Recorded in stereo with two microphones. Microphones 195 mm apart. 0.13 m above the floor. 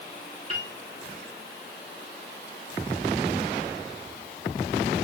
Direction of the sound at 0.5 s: 35° right (ahead or behind).